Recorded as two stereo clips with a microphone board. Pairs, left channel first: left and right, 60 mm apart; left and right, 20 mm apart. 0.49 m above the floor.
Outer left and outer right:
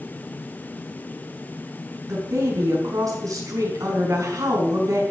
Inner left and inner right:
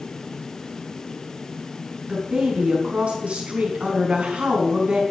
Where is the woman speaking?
70° right (ahead or behind), 4.5 m.